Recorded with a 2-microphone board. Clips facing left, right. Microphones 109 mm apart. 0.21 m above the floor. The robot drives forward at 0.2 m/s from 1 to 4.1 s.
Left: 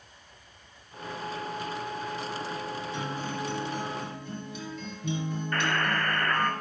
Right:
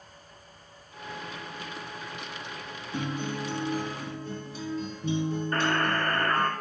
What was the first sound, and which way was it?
A guitar, 40° right (ahead or behind).